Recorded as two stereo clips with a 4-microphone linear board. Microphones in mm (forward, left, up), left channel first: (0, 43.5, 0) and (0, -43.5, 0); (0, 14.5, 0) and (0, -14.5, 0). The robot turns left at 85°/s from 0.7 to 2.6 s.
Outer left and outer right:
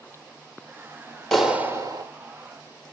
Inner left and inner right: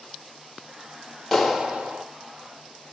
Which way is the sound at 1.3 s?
5° left.